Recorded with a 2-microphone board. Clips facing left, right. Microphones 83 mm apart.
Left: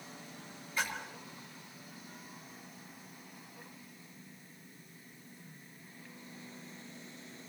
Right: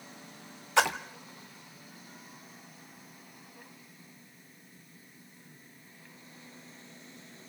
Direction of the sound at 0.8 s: 75° right (ahead or behind).